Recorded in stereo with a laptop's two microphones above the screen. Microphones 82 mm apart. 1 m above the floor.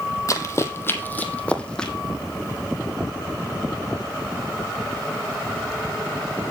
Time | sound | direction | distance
0.3 | running footsteps | 40° left (ahead or behind) | 1.5 m